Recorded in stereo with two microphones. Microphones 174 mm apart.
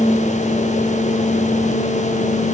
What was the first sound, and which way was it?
Only background noise.